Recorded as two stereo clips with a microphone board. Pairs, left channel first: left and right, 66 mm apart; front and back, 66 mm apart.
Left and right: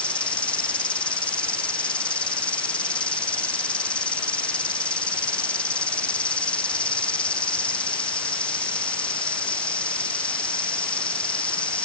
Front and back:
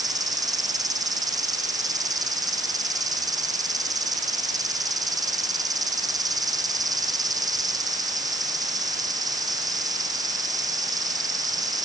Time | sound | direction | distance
0.0 | an insect | 160° left | ?